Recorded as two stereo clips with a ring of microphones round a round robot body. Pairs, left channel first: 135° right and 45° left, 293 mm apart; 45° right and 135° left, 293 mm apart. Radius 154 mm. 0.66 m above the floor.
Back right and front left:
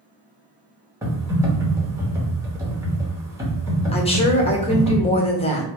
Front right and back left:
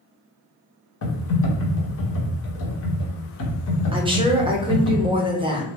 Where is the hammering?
I don't hear hammering.